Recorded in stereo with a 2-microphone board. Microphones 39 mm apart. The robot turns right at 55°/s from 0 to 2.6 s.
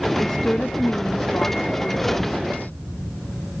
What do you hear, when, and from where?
0.2 s a woman speaking: straight ahead; by 2.8 s 135° left